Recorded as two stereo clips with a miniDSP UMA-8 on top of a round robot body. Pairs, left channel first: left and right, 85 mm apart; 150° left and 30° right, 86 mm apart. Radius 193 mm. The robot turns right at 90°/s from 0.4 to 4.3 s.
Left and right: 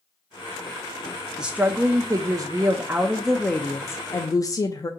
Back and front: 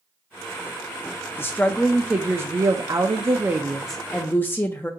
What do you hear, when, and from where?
1.4 s a woman speaking: 170° right, 0.6 m; by 4.9 s 95° left, 0.6 m